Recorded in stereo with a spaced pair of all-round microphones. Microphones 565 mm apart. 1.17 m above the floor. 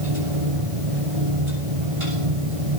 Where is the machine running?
65° right (ahead or behind), 7.5 m.